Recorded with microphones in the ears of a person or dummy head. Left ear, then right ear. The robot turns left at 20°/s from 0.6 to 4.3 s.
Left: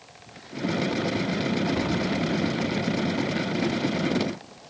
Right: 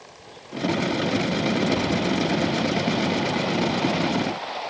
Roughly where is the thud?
Centre.